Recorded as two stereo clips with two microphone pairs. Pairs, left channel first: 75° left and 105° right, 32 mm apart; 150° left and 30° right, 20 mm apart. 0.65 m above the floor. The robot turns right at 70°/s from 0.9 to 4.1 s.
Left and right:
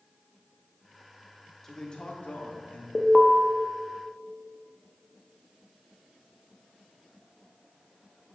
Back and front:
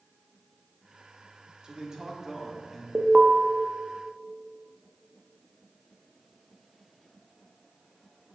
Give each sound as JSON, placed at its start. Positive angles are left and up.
{"t": 1.6, "sound": "a man speaking", "azimuth_deg": 5, "distance_m": 1.6}
{"t": 3.0, "sound": "an alarm", "azimuth_deg": 5, "distance_m": 0.6}